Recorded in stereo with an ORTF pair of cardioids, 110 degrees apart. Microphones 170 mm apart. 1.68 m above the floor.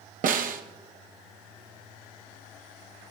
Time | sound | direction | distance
0.2 | a snare drum | 60° right | 1.4 m